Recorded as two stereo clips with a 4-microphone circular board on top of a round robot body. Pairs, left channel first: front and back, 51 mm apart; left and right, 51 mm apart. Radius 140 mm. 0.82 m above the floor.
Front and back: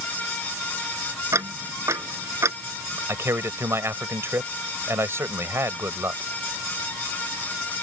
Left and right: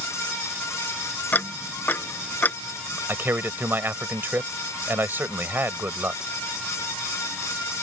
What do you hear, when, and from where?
1.3 s ticking: 145° left
3.1 s a man speaking: 140° right